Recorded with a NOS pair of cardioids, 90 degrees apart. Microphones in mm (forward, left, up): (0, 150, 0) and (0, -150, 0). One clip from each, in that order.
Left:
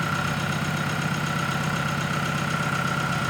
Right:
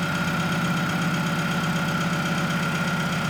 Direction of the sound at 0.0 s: Straight ahead.